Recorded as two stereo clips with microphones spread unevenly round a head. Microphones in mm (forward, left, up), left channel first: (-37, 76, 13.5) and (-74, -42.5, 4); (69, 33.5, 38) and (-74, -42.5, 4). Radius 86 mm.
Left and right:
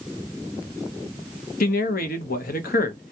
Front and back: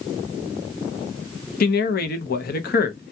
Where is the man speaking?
65° left, 0.8 m.